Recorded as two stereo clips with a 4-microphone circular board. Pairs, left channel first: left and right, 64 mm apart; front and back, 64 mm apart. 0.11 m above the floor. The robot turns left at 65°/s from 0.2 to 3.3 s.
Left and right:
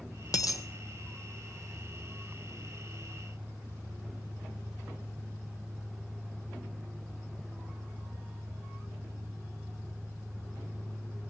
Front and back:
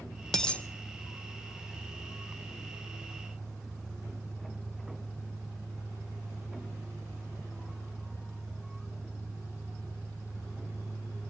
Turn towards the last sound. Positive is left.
turn(degrees=-110)